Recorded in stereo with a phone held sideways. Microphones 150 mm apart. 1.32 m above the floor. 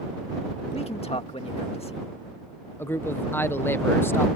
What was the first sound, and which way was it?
A man speaking, 40° left (ahead or behind).